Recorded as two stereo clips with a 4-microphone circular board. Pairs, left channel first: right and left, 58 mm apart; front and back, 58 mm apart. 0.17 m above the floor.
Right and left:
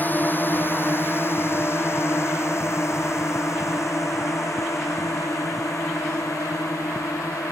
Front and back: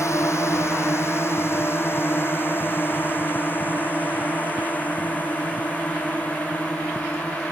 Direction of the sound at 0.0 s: 35° right.